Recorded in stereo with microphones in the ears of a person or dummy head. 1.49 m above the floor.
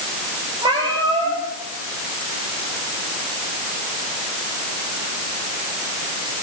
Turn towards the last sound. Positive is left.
turn(degrees=-20)  # may be behind; listen again after turning